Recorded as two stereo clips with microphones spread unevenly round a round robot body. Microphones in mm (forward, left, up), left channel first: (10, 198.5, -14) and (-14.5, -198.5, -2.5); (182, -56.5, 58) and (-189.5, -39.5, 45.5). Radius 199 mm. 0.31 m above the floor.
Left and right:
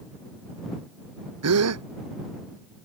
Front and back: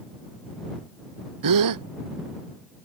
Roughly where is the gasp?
Behind right.